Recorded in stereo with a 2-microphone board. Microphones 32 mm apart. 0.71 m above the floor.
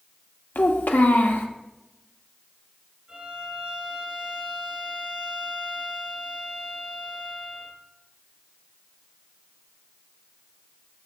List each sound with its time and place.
0.6 s a child speaking: 70° left (ahead or behind), 0.9 m
3.1 s a violin: 20° right (ahead or behind), 3 m